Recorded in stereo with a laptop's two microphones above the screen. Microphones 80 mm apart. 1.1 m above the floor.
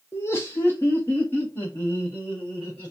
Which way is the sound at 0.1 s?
35° left (ahead or behind).